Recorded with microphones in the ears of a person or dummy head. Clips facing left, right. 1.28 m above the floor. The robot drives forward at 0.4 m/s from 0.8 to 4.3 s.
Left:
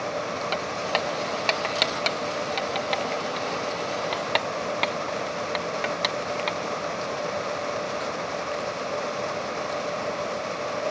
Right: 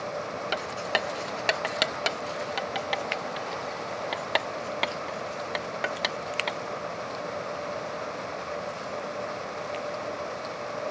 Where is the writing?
10° right (ahead or behind); by 6.6 s 5° right (ahead or behind).